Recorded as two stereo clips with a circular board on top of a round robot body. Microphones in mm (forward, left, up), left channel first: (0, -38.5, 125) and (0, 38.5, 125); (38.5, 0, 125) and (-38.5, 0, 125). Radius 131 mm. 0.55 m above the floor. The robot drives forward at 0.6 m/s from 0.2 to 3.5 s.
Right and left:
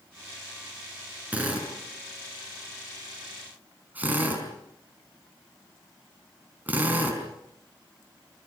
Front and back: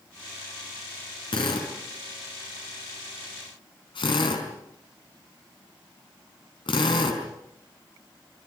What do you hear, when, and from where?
1.3 s a drill: 15° left, 6.5 m; by 7.2 s 20° left, 5 m